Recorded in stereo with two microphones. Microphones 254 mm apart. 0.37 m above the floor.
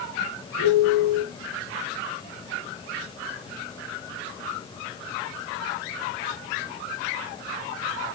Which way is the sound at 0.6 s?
80° left.